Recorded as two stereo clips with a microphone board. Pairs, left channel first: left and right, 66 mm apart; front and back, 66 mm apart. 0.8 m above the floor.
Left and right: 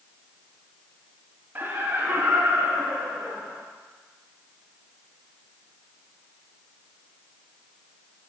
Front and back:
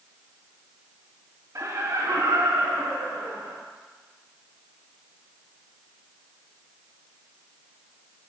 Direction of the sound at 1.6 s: 145° right.